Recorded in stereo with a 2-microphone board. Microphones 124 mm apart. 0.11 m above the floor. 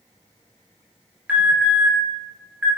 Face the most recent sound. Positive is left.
turn(degrees=-10)  # may be behind; listen again after turning